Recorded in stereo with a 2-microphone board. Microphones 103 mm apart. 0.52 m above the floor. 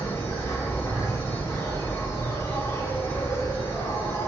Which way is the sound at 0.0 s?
25° left (ahead or behind).